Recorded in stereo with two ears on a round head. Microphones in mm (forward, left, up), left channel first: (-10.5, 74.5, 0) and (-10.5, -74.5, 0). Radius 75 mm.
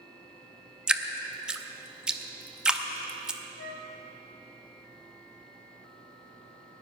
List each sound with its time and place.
0.9 s dripping: 5° right (ahead or behind), 0.7 m
3.6 s a flute: 75° left (ahead or behind), 3 m